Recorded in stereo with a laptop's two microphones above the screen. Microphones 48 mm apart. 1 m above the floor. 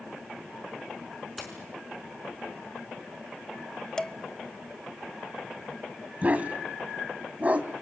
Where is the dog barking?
30° right (ahead or behind), 2 m.